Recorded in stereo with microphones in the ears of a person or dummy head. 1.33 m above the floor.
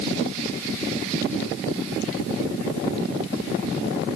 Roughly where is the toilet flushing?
I don't hear a toilet flushing.